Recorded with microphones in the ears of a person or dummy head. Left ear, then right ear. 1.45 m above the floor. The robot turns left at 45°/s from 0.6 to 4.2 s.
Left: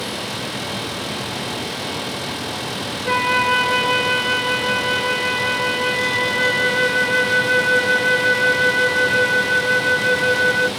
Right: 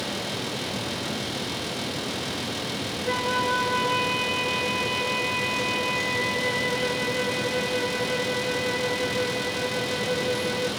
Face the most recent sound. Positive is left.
turn(degrees=60)